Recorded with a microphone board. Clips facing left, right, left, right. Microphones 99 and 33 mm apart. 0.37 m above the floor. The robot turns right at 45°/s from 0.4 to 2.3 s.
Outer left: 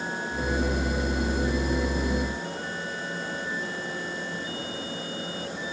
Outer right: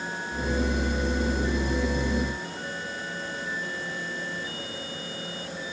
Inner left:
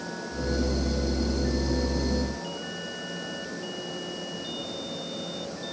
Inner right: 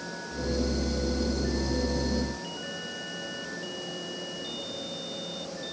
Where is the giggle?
I don't hear a giggle.